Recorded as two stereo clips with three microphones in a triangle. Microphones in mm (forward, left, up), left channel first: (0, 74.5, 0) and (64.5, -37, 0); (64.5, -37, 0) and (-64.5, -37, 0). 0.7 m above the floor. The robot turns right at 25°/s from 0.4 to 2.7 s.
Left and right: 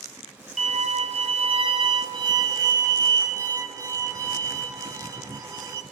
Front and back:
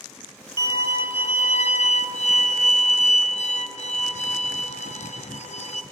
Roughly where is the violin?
Ahead right.